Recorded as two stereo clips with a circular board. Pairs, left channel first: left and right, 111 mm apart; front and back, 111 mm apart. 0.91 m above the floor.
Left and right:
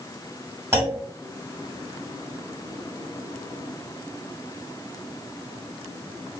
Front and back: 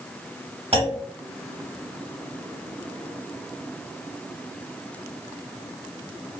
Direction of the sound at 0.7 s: 150° right.